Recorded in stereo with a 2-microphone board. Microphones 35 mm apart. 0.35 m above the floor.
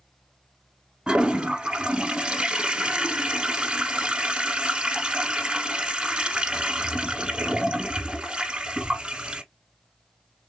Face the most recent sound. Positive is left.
turn(degrees=-25)  # may be behind; listen again after turning